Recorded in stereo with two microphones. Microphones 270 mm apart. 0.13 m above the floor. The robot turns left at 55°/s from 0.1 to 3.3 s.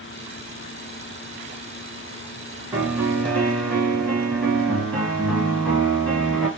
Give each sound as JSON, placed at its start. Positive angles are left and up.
{"t": 2.7, "sound": "a piano", "side_deg": -5, "distance_m": 1.3}